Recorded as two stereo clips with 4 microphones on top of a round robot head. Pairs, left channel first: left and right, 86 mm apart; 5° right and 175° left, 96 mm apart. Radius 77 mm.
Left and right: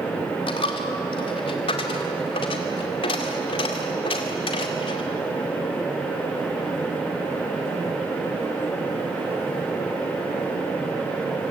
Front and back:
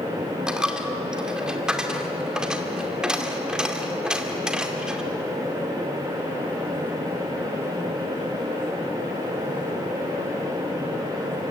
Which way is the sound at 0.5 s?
95° left.